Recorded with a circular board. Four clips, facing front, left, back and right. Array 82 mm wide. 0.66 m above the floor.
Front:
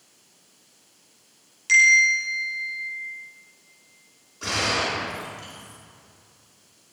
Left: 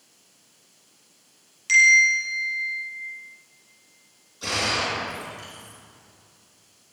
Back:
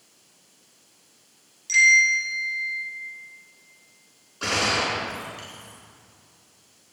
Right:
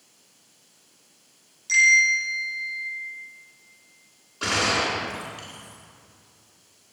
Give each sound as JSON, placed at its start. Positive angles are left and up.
{"t": 1.7, "sound": "a bell", "azimuth_deg": 50, "distance_m": 5.5}
{"t": 4.4, "sound": "a gunshot", "azimuth_deg": -115, "distance_m": 5.0}